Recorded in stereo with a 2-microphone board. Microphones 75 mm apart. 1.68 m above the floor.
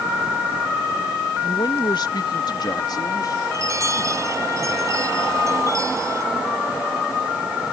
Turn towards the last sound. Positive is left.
turn(degrees=-45)  # may be behind; listen again after turning